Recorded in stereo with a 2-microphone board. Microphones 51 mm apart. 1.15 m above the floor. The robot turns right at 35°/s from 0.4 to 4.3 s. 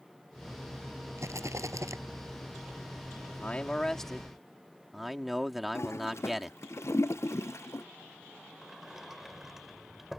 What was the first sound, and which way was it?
A rattle, 65° right (ahead or behind).